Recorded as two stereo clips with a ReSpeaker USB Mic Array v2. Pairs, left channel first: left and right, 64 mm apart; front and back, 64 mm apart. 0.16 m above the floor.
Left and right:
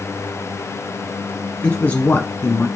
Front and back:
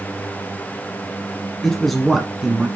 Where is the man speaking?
70° left, 1.2 m; by 2.7 s 115° left, 1.4 m.